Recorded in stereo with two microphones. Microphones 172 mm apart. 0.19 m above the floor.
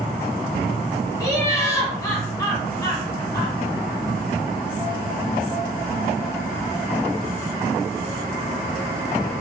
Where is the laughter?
20° left (ahead or behind), 1.1 m.